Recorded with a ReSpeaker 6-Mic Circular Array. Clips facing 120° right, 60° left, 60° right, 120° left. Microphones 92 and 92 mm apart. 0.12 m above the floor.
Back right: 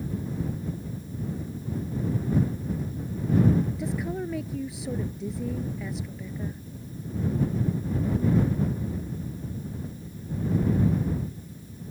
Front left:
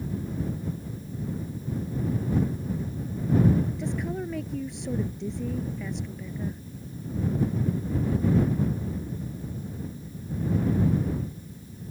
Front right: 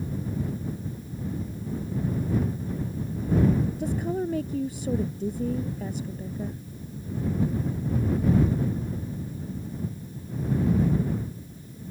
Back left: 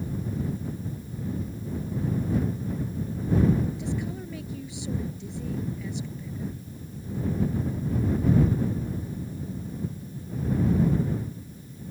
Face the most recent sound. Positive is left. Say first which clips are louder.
# even, front right 5 dB
turn(degrees=-35)